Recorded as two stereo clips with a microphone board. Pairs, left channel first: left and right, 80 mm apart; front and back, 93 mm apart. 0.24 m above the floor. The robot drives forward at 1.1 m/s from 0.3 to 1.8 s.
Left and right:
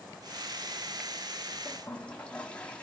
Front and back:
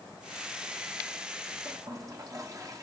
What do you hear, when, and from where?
1.6 s a toilet flushing: 155° left, 1.8 m; by 2.8 s 160° left, 1.9 m